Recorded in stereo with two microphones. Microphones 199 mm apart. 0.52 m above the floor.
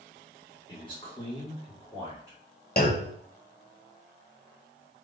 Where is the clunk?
50° left (ahead or behind), 0.8 m.